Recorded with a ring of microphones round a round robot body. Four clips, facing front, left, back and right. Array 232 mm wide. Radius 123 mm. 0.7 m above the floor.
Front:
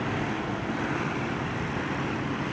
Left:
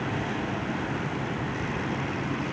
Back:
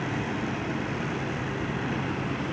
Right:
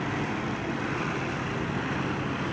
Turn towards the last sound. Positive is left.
No sound to turn to.